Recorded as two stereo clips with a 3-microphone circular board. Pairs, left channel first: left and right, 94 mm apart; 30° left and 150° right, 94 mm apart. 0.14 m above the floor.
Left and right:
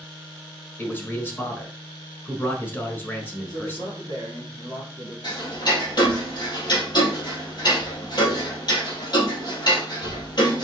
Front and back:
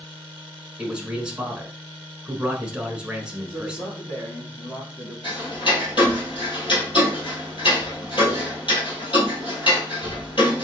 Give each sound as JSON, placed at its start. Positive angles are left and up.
{"t": 0.8, "sound": "a man speaking", "azimuth_deg": 140, "distance_m": 1.3}
{"t": 3.5, "sound": "a man speaking", "azimuth_deg": 65, "distance_m": 2.5}
{"t": 5.2, "sound": "ticking", "azimuth_deg": 55, "distance_m": 2.0}